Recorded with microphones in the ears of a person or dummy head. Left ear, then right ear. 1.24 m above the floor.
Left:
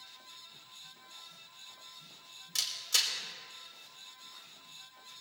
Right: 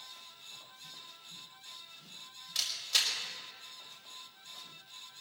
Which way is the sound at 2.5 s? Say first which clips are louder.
Even; 80° left.